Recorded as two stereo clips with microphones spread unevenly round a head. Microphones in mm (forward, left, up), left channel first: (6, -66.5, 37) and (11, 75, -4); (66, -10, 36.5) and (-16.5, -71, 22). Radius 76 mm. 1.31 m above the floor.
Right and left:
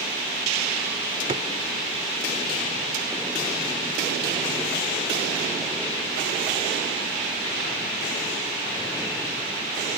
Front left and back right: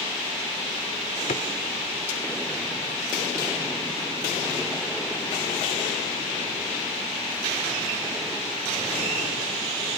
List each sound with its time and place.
1.3 s a drawer: 30° left